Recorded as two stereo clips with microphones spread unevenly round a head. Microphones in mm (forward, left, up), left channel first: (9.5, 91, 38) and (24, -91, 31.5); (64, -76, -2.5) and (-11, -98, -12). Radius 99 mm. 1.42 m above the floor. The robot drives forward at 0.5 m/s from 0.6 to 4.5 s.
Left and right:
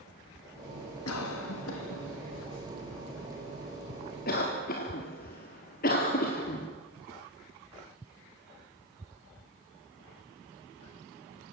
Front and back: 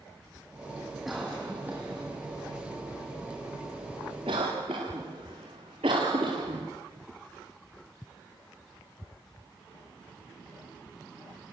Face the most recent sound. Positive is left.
turn(degrees=140)